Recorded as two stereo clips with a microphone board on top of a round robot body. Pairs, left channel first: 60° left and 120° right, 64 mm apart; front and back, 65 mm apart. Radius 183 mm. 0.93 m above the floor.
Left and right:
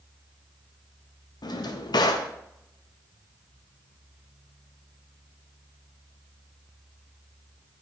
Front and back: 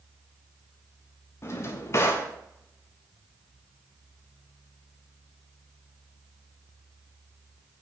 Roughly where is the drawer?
Ahead left.